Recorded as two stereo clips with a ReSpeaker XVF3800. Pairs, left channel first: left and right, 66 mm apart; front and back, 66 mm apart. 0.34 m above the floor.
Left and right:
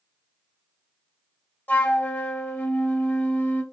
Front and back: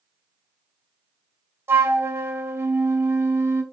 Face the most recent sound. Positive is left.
turn(degrees=145)